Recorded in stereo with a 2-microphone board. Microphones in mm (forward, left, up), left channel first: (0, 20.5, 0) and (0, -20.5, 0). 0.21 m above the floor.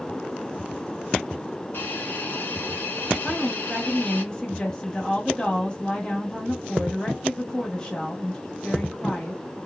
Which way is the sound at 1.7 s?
65° left (ahead or behind).